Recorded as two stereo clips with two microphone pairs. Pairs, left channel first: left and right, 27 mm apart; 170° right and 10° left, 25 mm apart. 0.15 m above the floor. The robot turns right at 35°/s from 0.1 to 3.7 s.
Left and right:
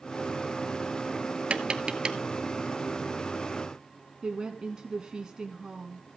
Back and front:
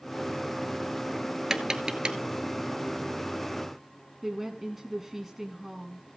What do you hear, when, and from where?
1.5 s tapping: 55° right, 0.9 m; by 2.2 s 30° right, 0.9 m
4.2 s a woman speaking: 60° right, 1.1 m